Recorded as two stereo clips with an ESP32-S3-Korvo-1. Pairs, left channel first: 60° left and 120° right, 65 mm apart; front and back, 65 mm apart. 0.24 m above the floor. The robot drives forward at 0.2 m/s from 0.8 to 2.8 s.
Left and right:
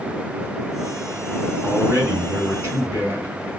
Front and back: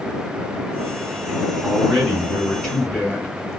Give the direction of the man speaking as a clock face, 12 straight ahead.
4 o'clock.